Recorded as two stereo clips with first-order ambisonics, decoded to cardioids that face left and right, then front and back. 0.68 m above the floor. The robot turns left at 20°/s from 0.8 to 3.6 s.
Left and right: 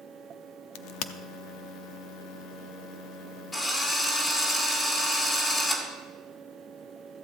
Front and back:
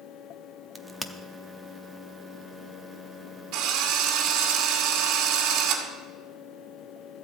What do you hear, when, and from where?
0.8 s a crack: 90° left, 0.6 m; by 1.1 s 85° left, 0.6 m
3.5 s a drill: 160° left, 2 m